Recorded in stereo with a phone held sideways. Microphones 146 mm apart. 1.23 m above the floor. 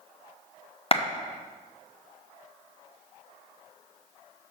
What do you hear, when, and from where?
0.9 s a clap: 40° left (ahead or behind), 0.6 m